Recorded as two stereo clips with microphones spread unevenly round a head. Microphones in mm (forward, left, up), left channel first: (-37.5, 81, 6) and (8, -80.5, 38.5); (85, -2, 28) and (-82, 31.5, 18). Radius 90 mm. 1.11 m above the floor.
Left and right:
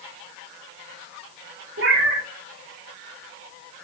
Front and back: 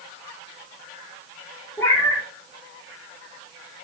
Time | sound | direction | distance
1.8 | a cat meowing | 90° right | 1.0 m